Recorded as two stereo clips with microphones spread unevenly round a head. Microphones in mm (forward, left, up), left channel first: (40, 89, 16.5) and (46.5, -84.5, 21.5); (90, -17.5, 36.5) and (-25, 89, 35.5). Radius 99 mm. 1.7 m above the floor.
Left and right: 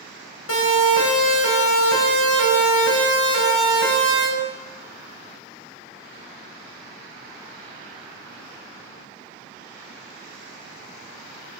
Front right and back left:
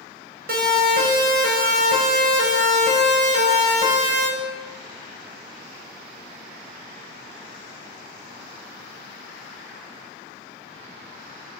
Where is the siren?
115° left, 7.5 m; by 4.3 s 90° left, 8.5 m.